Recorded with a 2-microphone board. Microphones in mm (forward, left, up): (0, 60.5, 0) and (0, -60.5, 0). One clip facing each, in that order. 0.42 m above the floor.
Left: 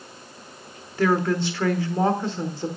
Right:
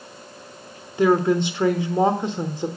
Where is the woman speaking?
20° right (ahead or behind), 0.9 m.